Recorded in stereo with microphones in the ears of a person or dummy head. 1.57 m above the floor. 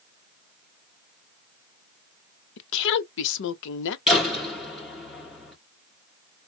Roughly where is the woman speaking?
Left.